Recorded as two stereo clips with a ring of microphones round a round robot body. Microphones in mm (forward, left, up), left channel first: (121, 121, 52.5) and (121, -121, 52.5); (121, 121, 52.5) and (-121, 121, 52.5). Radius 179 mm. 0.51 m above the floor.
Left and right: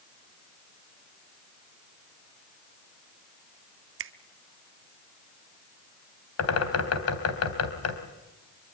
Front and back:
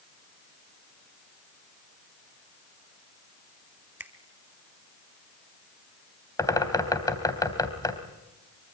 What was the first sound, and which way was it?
A finger snap, 100° right.